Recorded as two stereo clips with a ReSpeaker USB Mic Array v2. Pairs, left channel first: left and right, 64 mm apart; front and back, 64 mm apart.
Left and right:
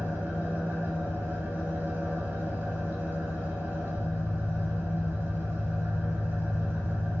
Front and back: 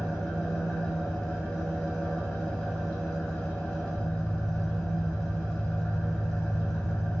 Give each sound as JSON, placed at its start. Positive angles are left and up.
{"t": 0.0, "sound": "an engine running", "azimuth_deg": -85, "distance_m": 1.4}